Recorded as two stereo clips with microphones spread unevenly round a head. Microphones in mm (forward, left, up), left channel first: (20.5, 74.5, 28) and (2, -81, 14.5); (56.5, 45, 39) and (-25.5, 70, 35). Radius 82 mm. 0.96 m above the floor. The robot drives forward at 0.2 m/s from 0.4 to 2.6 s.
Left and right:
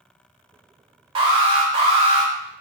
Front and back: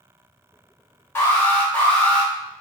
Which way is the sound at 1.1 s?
70° right.